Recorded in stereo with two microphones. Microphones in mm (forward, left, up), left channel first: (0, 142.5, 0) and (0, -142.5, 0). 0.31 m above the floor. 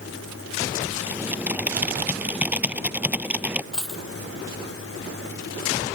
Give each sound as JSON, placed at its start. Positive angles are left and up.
{"t": 1.1, "sound": "typing on a keyboard", "side_deg": -5}
{"t": 3.7, "sound": "a dropped coin", "side_deg": 0}